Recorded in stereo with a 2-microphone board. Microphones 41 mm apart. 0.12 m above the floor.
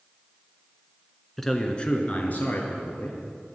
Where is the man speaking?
5° left (ahead or behind), 1.3 m; by 3.2 s 55° left (ahead or behind), 2.5 m.